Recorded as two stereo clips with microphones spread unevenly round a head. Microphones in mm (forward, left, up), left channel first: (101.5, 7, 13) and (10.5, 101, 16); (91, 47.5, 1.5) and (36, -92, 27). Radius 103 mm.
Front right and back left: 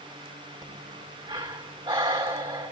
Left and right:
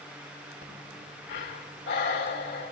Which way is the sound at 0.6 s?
85° left.